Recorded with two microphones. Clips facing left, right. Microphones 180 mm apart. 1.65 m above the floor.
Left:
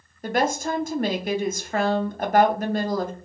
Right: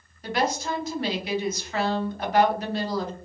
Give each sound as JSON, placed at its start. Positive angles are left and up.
{"t": 0.2, "sound": "a woman speaking", "side_deg": 55, "distance_m": 0.5}